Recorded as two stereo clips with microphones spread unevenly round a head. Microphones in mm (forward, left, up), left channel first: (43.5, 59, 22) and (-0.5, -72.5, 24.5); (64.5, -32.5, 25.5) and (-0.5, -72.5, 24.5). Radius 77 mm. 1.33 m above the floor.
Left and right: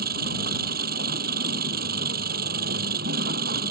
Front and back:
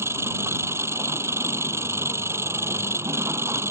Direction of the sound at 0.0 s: 95° right.